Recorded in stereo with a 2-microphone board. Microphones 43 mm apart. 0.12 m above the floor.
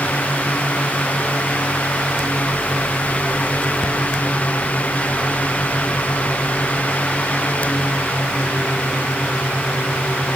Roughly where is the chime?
I don't hear a chime.